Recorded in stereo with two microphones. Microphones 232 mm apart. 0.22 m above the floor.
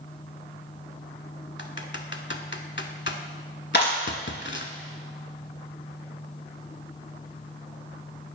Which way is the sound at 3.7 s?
50° left (ahead or behind).